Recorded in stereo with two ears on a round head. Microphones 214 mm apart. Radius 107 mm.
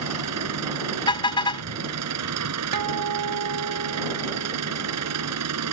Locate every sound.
0.0 s an engine running: 75° right (ahead or behind)
1.1 s a car horn: 20° left (ahead or behind)
2.7 s a guitar: 80° right